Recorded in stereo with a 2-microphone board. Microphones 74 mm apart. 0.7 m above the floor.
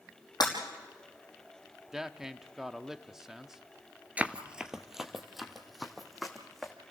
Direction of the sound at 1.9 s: 10° right (ahead or behind).